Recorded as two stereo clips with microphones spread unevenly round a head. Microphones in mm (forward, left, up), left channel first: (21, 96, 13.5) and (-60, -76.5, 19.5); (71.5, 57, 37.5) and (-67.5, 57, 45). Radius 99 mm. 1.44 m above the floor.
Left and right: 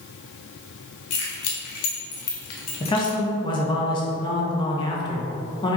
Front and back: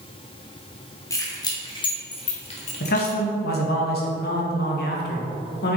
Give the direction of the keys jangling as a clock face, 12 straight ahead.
10 o'clock.